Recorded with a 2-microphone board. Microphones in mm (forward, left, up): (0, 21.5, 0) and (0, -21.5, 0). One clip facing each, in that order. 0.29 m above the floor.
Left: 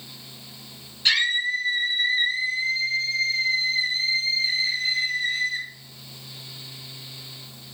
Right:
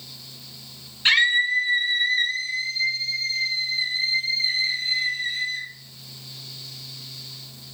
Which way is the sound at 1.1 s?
25° right (ahead or behind).